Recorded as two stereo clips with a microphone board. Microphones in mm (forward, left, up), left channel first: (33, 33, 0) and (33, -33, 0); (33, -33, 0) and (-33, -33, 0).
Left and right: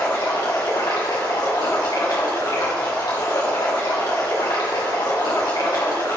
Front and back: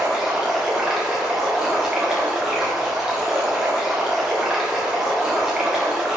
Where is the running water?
100° left, 2.5 m.